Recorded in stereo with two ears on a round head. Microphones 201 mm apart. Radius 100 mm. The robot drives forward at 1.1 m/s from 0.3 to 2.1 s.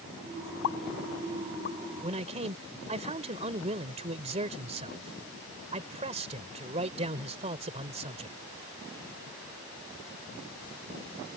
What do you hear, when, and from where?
0.6 s a pop: 70° left (ahead or behind); by 1.8 s 40° left (ahead or behind)
2.0 s a man speaking: 30° right (ahead or behind)